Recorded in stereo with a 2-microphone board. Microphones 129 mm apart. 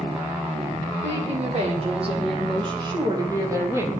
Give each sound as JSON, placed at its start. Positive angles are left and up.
{"t": 1.0, "sound": "a woman speaking", "side_deg": -55, "distance_m": 6.5}